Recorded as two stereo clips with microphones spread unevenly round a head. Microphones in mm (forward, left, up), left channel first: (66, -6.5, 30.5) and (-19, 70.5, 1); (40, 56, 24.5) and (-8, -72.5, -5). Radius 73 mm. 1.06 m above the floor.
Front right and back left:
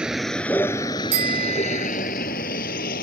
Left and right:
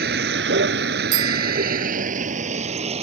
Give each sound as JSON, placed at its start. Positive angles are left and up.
{"t": 0.0, "sound": "a vehicle", "azimuth_deg": -135}
{"t": 1.1, "sound": "a bicycle bell", "azimuth_deg": -175}